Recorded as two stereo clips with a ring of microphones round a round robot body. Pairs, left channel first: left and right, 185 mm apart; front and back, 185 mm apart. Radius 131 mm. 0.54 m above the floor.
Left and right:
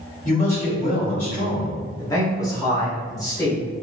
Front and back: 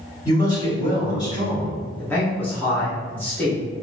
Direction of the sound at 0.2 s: 60° left.